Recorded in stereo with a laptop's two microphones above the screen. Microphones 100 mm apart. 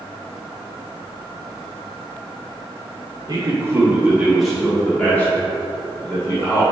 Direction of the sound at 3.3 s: 45° right (ahead or behind).